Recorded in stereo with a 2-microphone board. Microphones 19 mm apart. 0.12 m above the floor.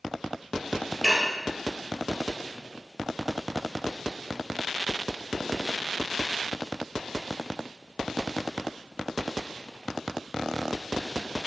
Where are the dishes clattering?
15° left (ahead or behind), 1.3 m.